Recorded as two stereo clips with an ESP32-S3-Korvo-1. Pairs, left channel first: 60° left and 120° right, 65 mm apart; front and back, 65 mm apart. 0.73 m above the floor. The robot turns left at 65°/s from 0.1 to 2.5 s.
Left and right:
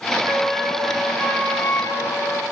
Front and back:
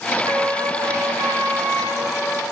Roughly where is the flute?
Behind right.